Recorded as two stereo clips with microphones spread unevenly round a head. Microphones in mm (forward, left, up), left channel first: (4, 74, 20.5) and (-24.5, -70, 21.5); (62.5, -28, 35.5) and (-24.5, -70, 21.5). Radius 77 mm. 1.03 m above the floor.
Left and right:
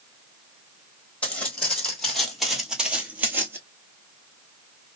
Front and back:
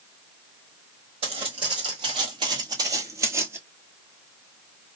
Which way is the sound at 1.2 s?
160° left.